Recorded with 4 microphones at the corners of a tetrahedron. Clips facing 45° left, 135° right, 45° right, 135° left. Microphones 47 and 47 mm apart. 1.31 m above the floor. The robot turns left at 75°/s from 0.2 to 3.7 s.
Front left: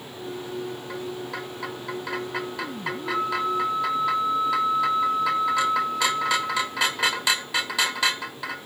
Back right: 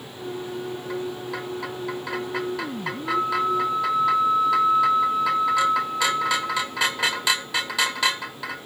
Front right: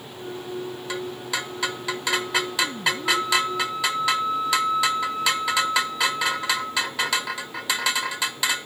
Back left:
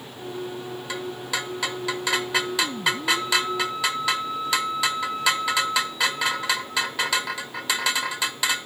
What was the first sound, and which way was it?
A flute, 15° right.